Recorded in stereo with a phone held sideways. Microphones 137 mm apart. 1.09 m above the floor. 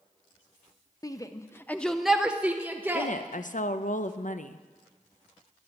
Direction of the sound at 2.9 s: 70° left (ahead or behind).